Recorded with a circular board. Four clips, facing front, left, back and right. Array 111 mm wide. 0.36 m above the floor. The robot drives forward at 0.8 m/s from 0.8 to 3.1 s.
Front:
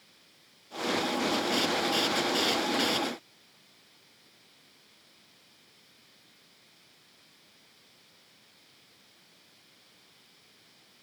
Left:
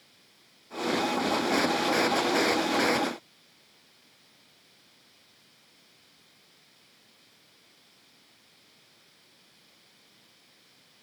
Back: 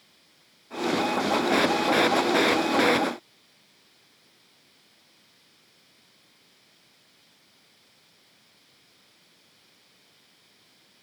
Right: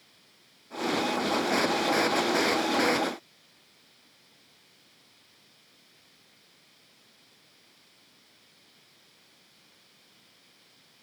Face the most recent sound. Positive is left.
No sound to turn to.